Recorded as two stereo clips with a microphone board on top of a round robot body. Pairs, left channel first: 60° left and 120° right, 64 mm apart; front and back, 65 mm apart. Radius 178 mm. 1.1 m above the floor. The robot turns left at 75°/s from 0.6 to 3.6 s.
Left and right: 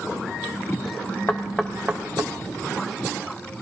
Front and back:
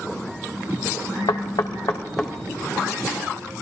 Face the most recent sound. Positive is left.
turn(degrees=-175)